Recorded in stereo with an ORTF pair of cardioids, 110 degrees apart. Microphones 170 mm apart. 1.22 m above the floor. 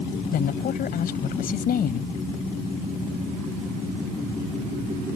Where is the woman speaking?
60° left.